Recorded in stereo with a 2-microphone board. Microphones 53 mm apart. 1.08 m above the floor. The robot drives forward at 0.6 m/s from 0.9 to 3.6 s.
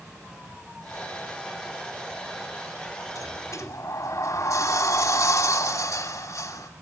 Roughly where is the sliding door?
Left.